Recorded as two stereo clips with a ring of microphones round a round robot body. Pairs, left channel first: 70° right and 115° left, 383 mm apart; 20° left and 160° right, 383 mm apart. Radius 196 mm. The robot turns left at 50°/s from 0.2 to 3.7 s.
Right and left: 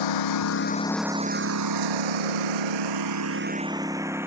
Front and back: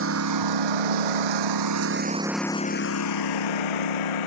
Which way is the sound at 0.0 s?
100° right.